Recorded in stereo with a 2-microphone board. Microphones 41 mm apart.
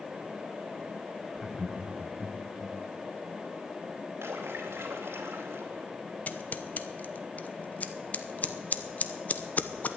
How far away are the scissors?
About 0.9 m.